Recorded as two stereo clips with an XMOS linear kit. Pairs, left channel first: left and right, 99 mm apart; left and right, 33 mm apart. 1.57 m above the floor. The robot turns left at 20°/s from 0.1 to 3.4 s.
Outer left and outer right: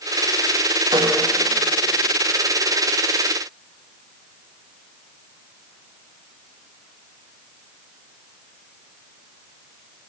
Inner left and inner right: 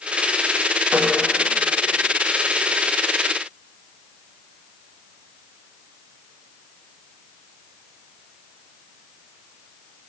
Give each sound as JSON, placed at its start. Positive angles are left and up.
{"t": 0.9, "sound": "a snare drum", "side_deg": -50, "distance_m": 1.8}